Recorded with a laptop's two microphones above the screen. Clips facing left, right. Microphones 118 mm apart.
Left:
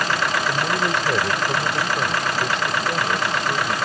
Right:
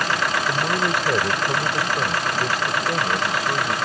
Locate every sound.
0.5 s a man speaking: 5° right (ahead or behind)